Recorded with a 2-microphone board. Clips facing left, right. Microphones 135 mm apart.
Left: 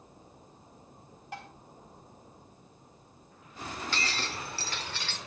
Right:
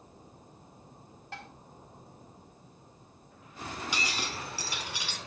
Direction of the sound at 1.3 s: 15° left (ahead or behind).